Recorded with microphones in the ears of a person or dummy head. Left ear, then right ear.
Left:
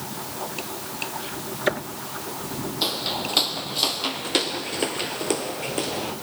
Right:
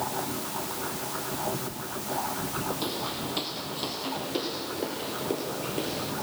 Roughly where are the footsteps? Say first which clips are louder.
Left 6 dB; left.